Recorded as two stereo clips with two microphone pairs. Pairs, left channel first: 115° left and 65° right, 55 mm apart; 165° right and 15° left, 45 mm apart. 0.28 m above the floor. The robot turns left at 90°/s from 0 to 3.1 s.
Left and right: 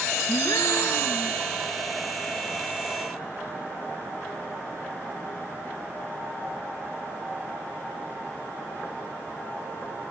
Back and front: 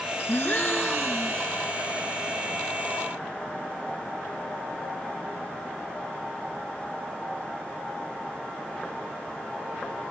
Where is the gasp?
155° left, 1.2 m; by 1.4 s 50° left, 1.2 m.